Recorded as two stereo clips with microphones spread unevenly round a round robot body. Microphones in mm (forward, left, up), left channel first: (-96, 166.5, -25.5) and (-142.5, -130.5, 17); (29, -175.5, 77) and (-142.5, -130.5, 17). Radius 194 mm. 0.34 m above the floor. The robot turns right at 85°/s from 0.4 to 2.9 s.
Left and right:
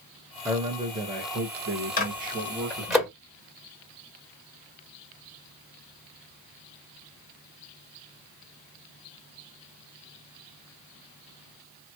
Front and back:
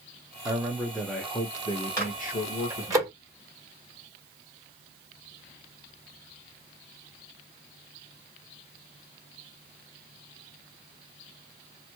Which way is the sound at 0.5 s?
165° left.